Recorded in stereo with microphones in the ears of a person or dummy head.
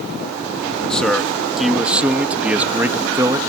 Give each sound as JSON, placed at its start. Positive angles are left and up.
{"t": 0.9, "sound": "a man speaking", "side_deg": 15}